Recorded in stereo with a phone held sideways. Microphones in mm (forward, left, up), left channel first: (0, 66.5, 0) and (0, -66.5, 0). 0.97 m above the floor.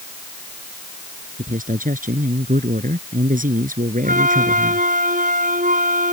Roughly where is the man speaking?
Right.